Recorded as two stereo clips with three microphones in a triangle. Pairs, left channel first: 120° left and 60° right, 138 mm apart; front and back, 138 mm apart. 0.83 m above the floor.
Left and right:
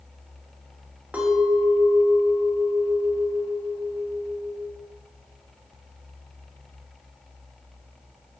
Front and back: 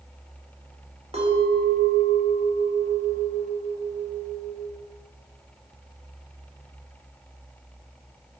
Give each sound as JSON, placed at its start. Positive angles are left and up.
{"t": 1.1, "sound": "a clink", "azimuth_deg": -140, "distance_m": 1.9}